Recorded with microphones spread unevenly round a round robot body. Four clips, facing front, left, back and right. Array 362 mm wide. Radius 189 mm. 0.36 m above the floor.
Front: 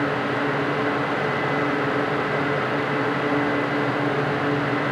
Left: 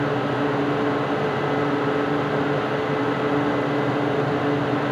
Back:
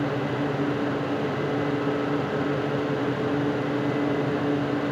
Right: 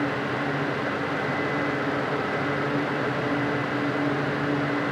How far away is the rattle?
I don't hear a rattle.